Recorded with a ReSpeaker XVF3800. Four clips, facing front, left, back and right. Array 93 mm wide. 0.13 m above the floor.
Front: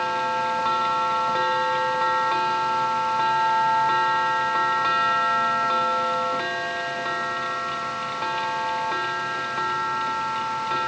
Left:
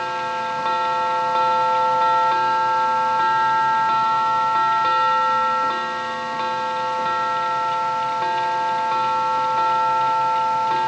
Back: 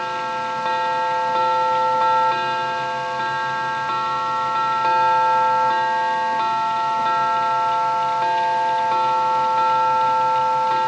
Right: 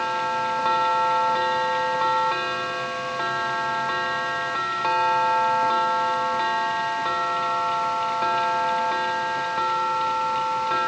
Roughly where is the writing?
No writing in this recording.